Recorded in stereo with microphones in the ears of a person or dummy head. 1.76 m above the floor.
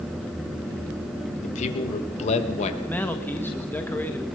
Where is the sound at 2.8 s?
10° left (ahead or behind), 2.5 m.